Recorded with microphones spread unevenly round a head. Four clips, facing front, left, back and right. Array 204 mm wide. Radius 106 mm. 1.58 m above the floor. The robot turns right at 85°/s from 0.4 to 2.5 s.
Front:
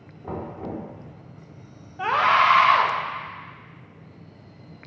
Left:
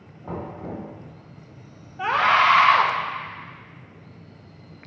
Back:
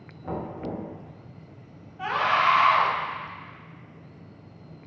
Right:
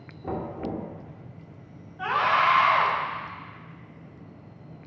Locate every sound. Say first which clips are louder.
0.2 s knocking: right 2 dB, even; 100° right, 2 m; by 0.9 s 60° right, 2 m
2.0 s a scream: left 4 dB, front 4 dB; 10° left, 1.4 m; by 2.9 s 55° left, 1.4 m